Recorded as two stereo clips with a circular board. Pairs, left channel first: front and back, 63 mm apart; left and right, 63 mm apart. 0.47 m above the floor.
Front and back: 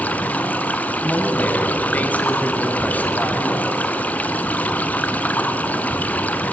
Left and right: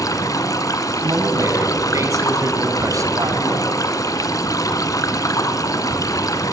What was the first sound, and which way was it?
Running water, 65° left.